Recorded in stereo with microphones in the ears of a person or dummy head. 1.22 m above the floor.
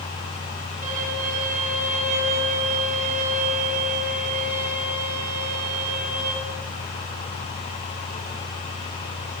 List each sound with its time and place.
0.8 s a violin: 45° right (ahead or behind), 5 m